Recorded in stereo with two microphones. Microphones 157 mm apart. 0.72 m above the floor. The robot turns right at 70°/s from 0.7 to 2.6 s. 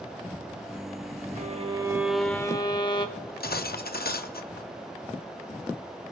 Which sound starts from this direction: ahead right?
A violin, at 1.4 s.